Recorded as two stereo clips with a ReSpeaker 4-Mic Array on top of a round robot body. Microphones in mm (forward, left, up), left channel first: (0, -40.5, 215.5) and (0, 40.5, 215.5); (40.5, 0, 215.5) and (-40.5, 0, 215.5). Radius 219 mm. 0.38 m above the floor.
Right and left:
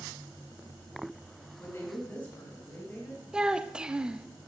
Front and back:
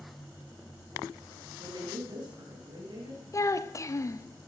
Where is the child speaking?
15° left, 0.8 m.